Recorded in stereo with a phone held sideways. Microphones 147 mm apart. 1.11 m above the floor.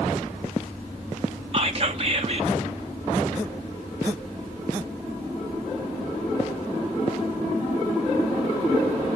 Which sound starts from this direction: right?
Whispering, at 1.5 s.